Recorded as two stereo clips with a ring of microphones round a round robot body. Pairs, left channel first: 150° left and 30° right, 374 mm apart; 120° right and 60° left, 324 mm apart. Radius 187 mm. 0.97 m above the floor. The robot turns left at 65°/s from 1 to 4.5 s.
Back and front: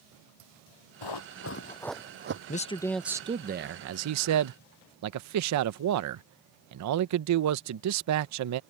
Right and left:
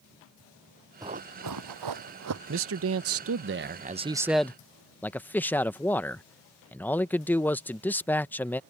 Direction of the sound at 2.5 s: 95° left.